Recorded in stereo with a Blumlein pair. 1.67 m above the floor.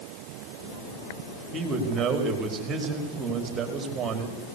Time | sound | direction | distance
1.5 | a man speaking | 20° right | 5 m